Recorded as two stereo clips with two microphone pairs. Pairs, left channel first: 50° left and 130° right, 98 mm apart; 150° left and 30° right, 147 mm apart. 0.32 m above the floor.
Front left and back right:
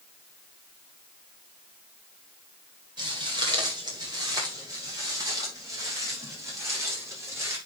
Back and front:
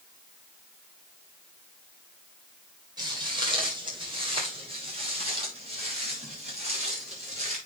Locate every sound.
3.0 s footsteps: 90° right, 4 m; by 7.6 s 70° right, 6 m